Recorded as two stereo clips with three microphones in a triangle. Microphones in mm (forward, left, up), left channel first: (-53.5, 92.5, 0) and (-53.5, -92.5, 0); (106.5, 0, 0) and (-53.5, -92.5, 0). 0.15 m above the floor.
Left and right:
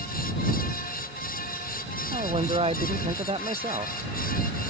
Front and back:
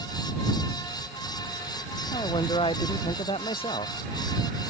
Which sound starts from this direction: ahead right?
A man speaking, at 2.1 s.